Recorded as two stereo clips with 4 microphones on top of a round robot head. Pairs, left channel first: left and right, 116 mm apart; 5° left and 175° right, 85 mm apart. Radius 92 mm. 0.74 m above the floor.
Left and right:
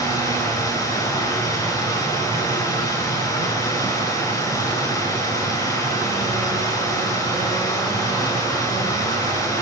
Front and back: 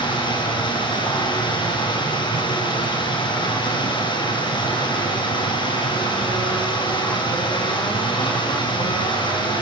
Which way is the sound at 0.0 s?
30° left.